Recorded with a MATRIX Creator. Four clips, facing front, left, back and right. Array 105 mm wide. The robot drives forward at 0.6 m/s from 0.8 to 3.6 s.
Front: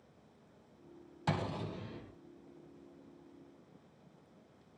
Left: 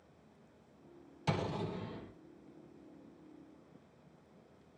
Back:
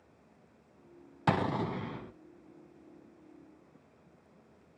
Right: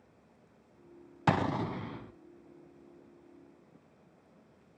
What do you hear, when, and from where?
1.3 s an explosion: 120° right, 0.5 m; by 2.1 s 150° right, 0.9 m